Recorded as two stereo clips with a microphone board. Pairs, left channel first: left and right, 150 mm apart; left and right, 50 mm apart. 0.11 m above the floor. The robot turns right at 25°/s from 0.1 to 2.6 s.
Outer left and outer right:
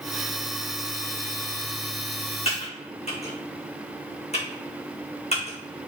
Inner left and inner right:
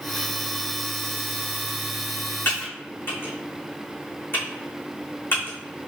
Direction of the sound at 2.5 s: 40° left (ahead or behind).